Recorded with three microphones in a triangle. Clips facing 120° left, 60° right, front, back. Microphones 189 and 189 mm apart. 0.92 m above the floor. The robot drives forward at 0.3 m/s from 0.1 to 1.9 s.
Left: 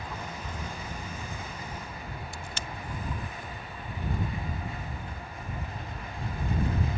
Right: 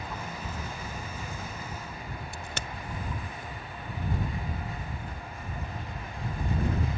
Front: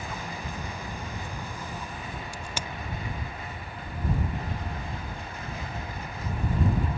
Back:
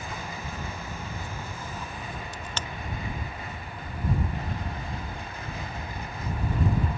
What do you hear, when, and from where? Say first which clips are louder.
2.3 s a crack: right 1 dB, even; 80° right